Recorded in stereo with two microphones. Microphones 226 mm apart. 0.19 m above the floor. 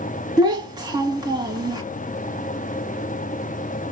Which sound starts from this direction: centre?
A child speaking, at 0.4 s.